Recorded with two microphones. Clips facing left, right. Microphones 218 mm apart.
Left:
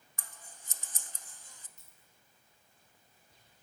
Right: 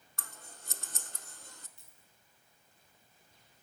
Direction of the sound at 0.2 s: 65° right (ahead or behind).